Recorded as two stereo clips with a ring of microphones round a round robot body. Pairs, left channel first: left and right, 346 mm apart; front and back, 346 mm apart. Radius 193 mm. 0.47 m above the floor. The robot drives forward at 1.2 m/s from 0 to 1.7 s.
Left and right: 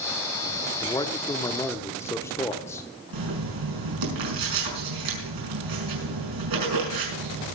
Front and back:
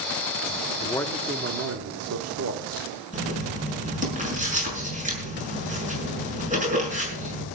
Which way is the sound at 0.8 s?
25° left.